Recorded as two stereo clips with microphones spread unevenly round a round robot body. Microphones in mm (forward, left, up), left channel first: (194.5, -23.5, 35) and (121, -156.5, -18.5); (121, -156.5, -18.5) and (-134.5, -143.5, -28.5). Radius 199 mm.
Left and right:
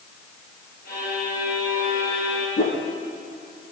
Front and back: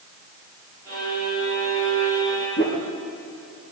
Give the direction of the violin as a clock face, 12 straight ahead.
9 o'clock.